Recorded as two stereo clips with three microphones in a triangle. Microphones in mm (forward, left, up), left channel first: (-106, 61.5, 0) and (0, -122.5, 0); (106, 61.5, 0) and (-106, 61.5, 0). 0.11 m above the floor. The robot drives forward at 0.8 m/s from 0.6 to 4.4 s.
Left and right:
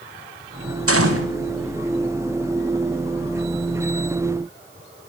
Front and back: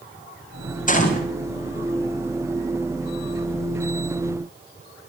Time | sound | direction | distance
0.9 | a gunshot | 55° right | 6 m